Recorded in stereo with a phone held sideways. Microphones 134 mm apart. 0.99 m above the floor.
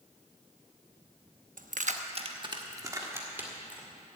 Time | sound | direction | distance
1.6 | keys jangling | 85° right | 0.9 m